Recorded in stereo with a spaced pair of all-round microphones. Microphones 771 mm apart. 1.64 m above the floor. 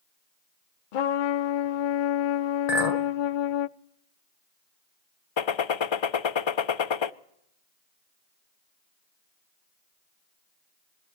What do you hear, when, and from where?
0.9 s a trumpet: 85° left, 0.7 m
2.7 s a clink: 50° left (ahead or behind), 1.1 m
5.4 s a gunshot: 40° left (ahead or behind), 0.5 m